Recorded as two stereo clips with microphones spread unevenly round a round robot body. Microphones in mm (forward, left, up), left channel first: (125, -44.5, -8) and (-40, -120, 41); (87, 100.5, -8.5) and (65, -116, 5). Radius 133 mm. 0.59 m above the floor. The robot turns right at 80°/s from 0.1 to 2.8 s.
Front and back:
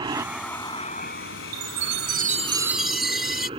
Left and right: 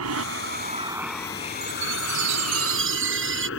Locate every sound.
0.0 s an aircraft: 90° right; by 3.6 s 135° left
1.5 s a chime: 170° right; by 3.5 s 70° right